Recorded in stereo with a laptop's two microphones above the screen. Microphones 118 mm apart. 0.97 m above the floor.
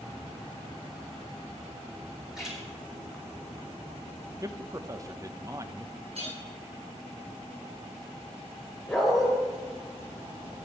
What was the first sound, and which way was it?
A splash, 5° right (ahead or behind).